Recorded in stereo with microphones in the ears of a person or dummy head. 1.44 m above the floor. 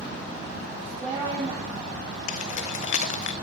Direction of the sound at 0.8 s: 30° right (ahead or behind).